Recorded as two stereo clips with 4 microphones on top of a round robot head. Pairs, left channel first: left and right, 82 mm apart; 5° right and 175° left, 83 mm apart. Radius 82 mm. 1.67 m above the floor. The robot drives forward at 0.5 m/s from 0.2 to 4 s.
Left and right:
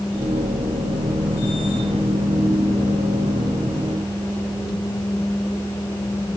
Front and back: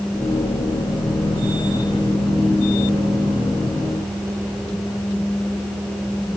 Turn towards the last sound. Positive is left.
No sound to turn to.